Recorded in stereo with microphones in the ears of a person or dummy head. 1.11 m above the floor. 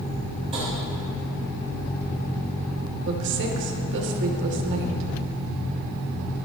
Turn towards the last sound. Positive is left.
turn(degrees=-60)  # may be behind; listen again after turning